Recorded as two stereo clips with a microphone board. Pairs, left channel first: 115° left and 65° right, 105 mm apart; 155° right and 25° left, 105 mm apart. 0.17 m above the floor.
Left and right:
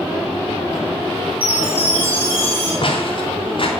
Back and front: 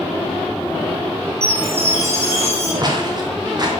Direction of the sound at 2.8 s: 75° left.